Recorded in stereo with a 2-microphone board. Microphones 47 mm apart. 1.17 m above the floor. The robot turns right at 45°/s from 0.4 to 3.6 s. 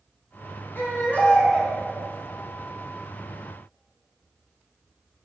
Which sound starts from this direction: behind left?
A baby crying, at 0.8 s.